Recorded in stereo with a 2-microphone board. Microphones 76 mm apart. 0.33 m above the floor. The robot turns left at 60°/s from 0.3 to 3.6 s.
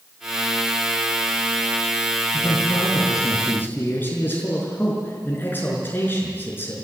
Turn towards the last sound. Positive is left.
turn(degrees=25)